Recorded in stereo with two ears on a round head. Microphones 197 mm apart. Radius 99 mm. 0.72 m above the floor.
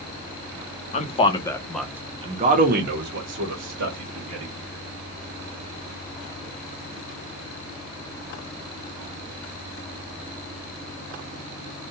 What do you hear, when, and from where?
0.9 s a man speaking: 30° left (ahead or behind), 0.8 m; by 4.5 s 70° right (ahead or behind), 1.5 m